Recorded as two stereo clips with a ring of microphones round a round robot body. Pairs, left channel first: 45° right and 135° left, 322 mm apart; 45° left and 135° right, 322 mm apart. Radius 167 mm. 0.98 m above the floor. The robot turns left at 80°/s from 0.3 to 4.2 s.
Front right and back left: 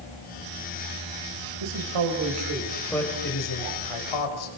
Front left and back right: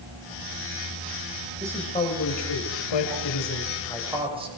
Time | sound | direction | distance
1.6 | a man speaking | 150° left | 6 m